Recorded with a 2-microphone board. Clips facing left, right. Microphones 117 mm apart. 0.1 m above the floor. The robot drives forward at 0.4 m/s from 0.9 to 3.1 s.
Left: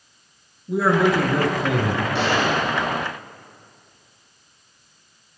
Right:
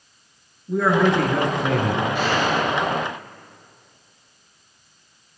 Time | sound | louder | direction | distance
0.7 | a man speaking | even | 5° left (ahead or behind) | 1.3 m
2.1 | a gunshot | even | 65° left (ahead or behind) | 3.5 m